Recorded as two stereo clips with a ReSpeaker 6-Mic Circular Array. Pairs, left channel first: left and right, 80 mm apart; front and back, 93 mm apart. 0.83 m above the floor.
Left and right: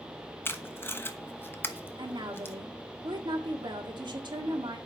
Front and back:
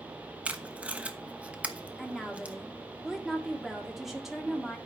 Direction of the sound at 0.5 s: 115° left.